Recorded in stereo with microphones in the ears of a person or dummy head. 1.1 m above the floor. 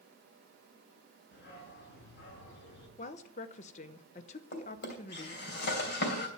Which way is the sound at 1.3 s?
65° left (ahead or behind).